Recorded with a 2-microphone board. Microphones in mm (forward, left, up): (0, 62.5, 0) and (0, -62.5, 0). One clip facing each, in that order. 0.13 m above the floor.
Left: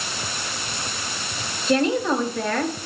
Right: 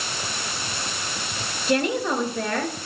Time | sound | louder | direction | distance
1.7 | a woman speaking | left 3 dB | 10° right (ahead or behind) | 2.5 m